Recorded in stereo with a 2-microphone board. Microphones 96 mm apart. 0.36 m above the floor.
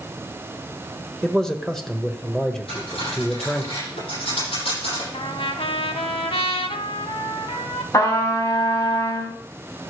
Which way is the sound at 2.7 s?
75° left (ahead or behind).